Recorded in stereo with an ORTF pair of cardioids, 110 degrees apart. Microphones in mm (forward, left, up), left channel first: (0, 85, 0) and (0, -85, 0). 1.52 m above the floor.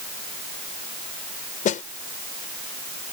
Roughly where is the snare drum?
Ahead left.